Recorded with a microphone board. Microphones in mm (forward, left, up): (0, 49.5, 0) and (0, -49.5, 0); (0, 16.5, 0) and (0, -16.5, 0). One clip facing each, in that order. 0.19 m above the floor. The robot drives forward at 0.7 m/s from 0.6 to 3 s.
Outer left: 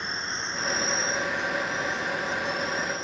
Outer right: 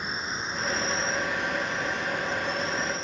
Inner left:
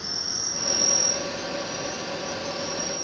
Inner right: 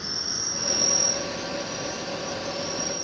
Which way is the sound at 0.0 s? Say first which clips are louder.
Outer right 1 dB, even; 10° right (ahead or behind).